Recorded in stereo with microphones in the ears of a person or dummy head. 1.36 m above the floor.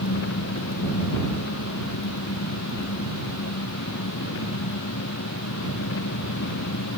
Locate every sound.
0.0 s an engine running: 75° left (ahead or behind)